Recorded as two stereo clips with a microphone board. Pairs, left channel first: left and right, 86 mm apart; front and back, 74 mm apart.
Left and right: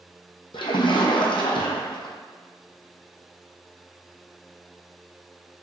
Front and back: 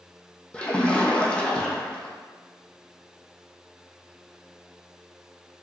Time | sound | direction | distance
0.5 | a splash | 75° left | 0.8 m